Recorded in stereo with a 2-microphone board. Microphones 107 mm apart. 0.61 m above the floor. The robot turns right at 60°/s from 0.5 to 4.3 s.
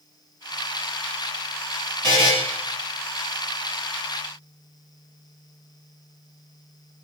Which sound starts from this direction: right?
A buzzer, at 2.0 s.